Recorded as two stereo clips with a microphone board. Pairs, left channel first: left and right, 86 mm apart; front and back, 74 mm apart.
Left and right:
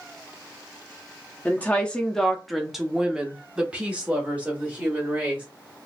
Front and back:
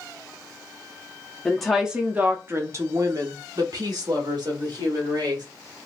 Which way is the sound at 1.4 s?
70° left.